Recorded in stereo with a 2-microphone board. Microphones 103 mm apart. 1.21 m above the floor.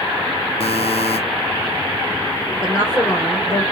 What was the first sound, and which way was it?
A buzzer, 70° left (ahead or behind).